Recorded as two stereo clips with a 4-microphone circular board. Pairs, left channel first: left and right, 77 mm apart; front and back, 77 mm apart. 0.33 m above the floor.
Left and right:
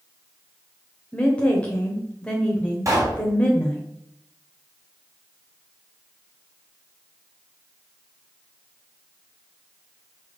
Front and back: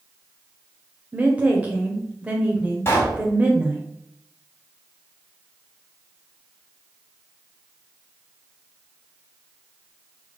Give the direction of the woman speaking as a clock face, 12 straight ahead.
7 o'clock.